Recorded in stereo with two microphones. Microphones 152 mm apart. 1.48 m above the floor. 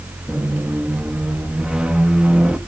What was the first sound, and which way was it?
A squeak, 5° right (ahead or behind).